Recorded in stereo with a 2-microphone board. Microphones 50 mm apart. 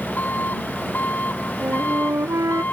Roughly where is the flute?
Right.